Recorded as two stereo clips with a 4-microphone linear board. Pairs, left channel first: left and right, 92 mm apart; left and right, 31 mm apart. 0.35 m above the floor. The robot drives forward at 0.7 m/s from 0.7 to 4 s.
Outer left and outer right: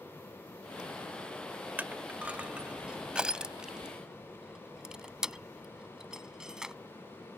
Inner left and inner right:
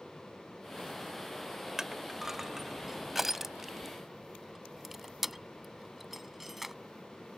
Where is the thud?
No thud in this recording.